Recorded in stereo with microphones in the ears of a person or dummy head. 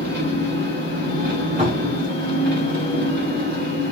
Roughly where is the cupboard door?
Right.